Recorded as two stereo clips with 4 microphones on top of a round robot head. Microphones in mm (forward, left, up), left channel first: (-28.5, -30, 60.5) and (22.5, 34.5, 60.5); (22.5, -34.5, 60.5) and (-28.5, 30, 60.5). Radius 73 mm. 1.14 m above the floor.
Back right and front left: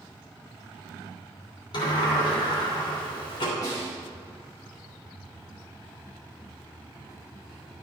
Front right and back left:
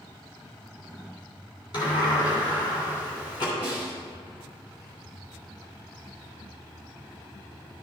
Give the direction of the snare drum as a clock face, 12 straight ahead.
3 o'clock.